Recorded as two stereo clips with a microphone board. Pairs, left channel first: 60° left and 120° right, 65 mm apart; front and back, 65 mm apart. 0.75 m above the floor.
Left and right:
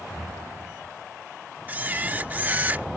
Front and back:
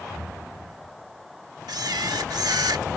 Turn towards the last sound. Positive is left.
turn(degrees=180)